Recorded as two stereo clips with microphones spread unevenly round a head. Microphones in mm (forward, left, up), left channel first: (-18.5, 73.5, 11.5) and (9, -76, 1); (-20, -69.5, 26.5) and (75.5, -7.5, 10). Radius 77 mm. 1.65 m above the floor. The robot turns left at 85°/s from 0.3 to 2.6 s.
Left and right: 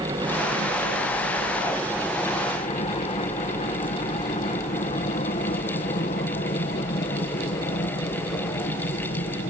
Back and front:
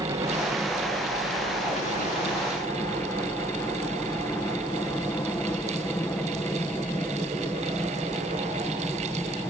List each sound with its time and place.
0.0 s a helicopter: 20° right; by 9.5 s 130° left